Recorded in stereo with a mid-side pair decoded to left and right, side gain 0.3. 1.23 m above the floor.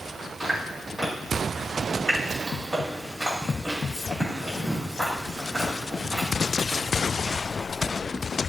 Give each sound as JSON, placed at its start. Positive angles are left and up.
{"t": 0.4, "sound": "chewing", "azimuth_deg": -15, "distance_m": 2.5}